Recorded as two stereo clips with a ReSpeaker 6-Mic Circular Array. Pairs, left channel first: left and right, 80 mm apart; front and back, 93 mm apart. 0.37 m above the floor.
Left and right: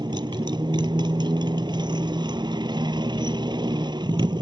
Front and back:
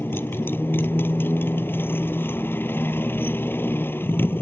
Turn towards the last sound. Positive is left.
turn(degrees=-70)